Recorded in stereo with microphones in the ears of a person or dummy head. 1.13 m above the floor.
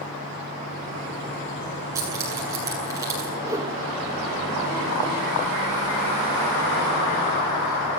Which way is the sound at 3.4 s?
20° right (ahead or behind).